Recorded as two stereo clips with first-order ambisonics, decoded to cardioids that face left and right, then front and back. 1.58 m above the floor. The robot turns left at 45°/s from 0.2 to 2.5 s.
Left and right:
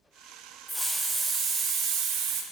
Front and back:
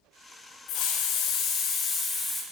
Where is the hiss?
5° right, 0.8 m; by 2.4 s 80° right, 0.8 m.